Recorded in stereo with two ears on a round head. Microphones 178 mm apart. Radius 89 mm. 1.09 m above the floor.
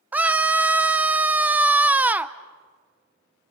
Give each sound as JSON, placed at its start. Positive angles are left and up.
{"t": 0.1, "sound": "a scream", "side_deg": -5, "distance_m": 0.7}